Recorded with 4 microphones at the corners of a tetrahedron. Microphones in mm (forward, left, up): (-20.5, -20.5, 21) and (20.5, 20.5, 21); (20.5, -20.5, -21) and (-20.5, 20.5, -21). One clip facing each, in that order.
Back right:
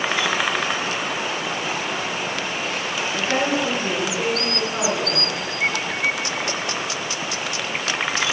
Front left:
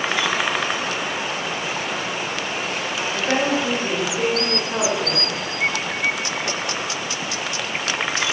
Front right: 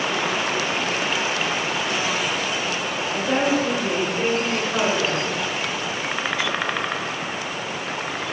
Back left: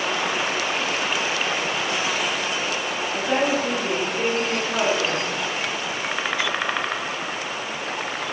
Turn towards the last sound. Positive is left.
turn(degrees=65)